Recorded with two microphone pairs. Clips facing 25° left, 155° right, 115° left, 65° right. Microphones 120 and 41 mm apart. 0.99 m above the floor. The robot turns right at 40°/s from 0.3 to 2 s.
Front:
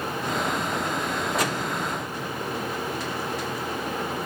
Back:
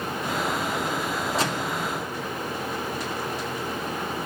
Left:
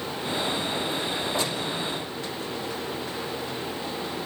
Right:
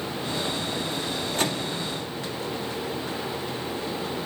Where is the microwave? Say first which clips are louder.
Even, right 1 dB; 95° right, 1.8 m; by 1.8 s 80° right, 1.8 m.